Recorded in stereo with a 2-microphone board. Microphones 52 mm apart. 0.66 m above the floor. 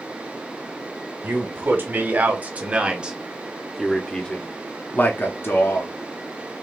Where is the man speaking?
45° right (ahead or behind), 1.8 m; by 5.9 s 50° left (ahead or behind), 1.3 m.